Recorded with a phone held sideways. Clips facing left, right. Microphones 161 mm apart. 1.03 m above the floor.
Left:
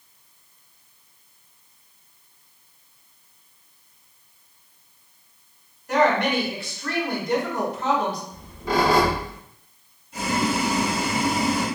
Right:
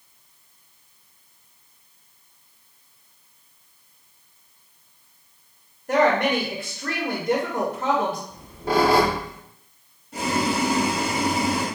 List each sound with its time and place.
5.9 s a woman speaking: 55° right (ahead or behind), 1.3 m
8.3 s a squeak: 60° right (ahead or behind), 1.5 m
10.1 s boiling: 75° right (ahead or behind), 1.9 m